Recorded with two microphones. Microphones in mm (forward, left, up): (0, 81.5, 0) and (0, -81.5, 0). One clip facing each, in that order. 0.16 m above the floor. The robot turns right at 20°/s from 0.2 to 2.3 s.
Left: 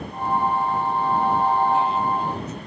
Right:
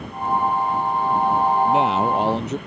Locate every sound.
1.6 s a man speaking: 70° right (ahead or behind); by 2.6 s 75° right (ahead or behind)